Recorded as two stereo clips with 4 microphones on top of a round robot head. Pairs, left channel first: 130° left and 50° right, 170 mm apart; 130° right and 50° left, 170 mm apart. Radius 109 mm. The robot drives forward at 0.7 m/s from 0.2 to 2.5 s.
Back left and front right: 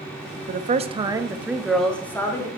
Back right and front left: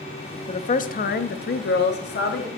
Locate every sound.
0.5 s a woman speaking: 80° right, 0.8 m; by 2.5 s 155° right, 1.5 m